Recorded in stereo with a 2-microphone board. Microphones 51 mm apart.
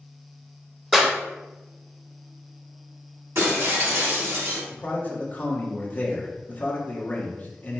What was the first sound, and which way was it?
A clap, 5° right (ahead or behind).